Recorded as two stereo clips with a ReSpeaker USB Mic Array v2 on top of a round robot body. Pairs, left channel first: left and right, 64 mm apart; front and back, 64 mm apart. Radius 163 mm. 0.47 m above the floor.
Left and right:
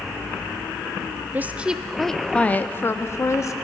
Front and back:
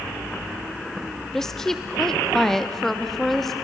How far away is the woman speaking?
About 1.2 m.